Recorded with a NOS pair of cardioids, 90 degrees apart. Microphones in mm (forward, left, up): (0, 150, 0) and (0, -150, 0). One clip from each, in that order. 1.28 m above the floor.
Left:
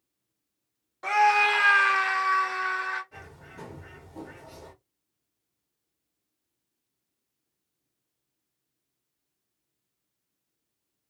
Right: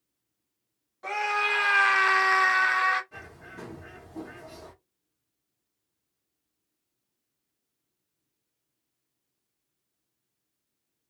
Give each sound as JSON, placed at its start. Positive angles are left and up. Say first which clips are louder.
{"t": 1.0, "sound": "a scream", "louder": "left 6 dB", "azimuth_deg": 40, "distance_m": 0.9}
{"t": 3.1, "sound": "a bird", "louder": "right 2 dB", "azimuth_deg": -5, "distance_m": 1.0}